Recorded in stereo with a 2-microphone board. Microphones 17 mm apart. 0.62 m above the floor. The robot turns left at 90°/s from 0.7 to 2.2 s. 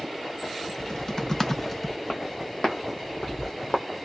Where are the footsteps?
55° left (ahead or behind), 2 m; by 3.8 s 60° left (ahead or behind), 1.3 m.